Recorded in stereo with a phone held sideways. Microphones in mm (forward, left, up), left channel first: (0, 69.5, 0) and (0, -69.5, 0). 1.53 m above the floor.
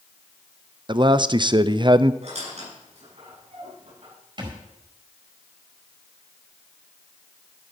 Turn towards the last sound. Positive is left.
turn(degrees=-35)  # may be behind; listen again after turning